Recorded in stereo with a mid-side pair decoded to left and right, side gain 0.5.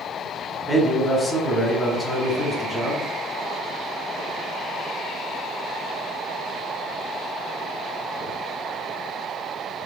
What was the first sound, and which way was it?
A man speaking, straight ahead.